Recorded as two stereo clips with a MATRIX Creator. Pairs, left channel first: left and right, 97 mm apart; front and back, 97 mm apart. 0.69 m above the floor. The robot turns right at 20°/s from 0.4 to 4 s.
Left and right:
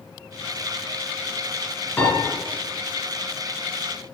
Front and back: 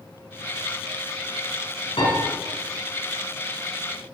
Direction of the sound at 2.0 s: 20° left.